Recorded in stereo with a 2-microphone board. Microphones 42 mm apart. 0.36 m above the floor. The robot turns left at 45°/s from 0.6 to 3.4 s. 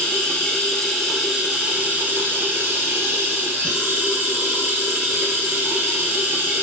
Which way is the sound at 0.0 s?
20° left.